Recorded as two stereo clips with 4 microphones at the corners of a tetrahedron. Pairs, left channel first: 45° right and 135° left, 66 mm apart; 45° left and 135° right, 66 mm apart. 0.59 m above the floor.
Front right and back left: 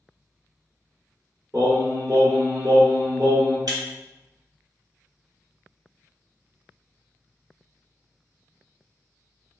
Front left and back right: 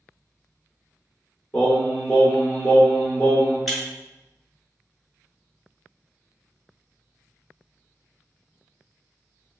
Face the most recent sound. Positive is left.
turn(degrees=135)